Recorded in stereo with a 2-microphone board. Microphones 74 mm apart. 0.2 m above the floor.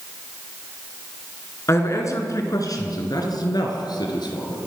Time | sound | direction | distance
1.7 | a man speaking | 40° left (ahead or behind) | 2 m